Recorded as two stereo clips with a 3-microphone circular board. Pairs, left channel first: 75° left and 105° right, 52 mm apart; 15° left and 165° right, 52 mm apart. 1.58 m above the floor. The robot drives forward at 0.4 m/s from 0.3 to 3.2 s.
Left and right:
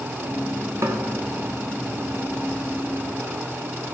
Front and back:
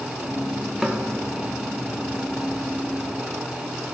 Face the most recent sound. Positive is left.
turn(degrees=-110)